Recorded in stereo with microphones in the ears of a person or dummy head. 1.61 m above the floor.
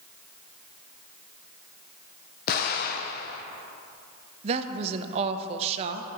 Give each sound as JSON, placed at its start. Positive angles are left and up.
{"t": 2.5, "sound": "an explosion", "side_deg": 55, "distance_m": 0.6}
{"t": 4.4, "sound": "a woman speaking", "side_deg": -35, "distance_m": 0.6}